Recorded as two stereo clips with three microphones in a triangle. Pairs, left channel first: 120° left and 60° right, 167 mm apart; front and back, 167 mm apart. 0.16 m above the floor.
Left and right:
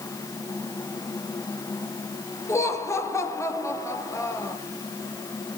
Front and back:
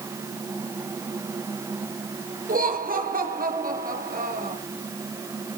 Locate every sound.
2.5 s laughter: 170° right, 3 m